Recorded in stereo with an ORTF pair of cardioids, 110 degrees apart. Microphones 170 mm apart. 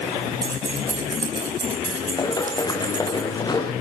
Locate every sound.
0.4 s keys jangling: 20° right, 7.5 m; by 3.2 s 25° right, 11.5 m
2.2 s running footsteps: 25° left, 3.5 m